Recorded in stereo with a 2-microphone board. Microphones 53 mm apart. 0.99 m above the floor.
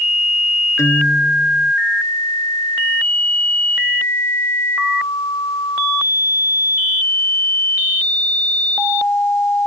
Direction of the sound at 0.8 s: 70° left (ahead or behind).